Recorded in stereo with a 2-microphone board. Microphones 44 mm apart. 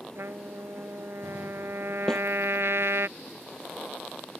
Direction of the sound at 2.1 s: 10° left (ahead or behind).